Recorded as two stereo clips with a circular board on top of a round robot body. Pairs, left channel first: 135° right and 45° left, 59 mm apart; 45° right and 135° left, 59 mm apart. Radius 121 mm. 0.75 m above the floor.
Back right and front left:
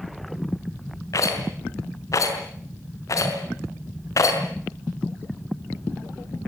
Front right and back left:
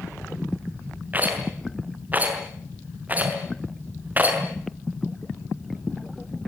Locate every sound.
1.1 s a rattle: 165° right, 5.5 m